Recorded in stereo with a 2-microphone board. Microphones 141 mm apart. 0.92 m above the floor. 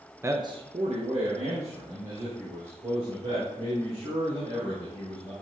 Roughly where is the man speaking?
Centre.